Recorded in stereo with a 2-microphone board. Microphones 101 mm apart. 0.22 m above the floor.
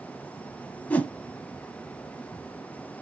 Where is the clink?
I don't hear a clink.